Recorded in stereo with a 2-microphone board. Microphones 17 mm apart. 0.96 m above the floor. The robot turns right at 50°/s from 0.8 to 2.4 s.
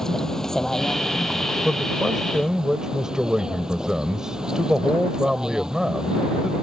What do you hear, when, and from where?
0.0 s a vehicle: 150° left; by 6.6 s 130° right
1.6 s a man speaking: 175° right; by 6.5 s 135° right